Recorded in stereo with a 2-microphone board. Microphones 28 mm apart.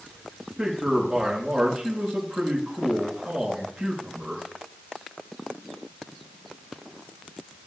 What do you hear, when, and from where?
0.6 s a man speaking: 30° right (ahead or behind), 5 m